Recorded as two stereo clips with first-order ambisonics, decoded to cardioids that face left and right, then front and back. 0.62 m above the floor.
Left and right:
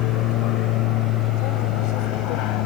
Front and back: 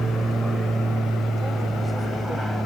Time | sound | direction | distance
0.0 | an aircraft | 100° left | ?